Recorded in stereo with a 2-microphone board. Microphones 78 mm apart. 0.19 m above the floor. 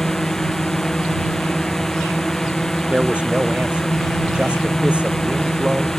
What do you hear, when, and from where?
0.0 s a drone: 5° left (ahead or behind)
2.9 s a man speaking: 15° right (ahead or behind)